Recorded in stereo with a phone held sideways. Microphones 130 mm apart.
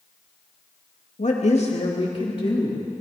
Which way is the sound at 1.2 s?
65° left (ahead or behind).